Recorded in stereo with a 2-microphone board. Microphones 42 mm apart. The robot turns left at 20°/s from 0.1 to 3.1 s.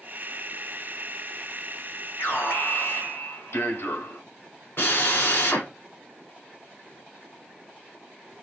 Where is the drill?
55° left (ahead or behind), 2.5 m.